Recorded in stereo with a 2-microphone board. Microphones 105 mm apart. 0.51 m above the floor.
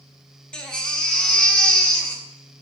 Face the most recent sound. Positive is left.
turn(degrees=10)  # may be behind; listen again after turning